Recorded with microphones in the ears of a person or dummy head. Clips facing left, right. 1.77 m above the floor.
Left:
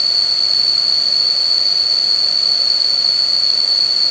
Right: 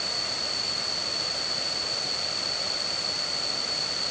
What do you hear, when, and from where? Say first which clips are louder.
0.0 s an insect: even; 75° left (ahead or behind)